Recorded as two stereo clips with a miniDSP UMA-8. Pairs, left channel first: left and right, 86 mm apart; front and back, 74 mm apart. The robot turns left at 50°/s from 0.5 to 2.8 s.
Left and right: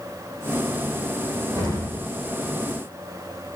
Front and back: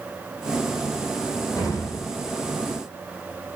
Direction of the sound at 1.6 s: 35° right.